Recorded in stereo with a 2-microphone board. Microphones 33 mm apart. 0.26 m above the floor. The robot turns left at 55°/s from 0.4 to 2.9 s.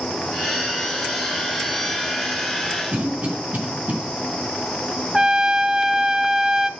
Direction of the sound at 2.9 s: 50° right (ahead or behind).